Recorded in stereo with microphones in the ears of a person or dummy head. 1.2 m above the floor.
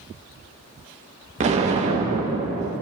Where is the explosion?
35° right (ahead or behind), 0.9 m.